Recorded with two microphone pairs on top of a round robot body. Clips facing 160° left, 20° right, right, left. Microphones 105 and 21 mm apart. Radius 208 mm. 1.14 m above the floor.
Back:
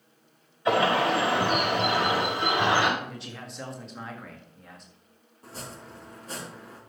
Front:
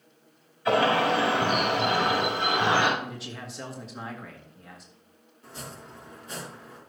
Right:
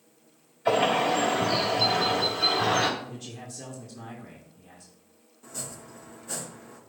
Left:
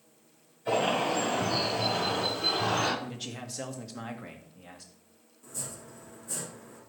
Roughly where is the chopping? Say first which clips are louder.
Back 1 dB, right 2 dB; behind right.